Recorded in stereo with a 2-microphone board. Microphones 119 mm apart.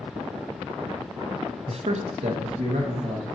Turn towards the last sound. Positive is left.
turn(degrees=-55)  # may be behind; listen again after turning